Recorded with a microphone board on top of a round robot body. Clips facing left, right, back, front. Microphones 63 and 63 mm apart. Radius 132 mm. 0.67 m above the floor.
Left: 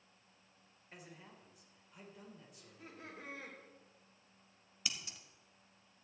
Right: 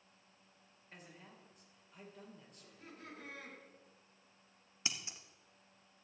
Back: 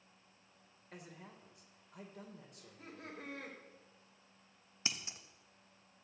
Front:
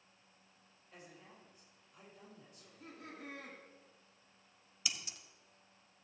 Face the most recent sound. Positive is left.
turn(degrees=-145)